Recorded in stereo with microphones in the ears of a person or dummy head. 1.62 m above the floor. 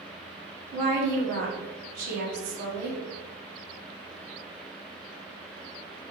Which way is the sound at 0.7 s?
50° right (ahead or behind).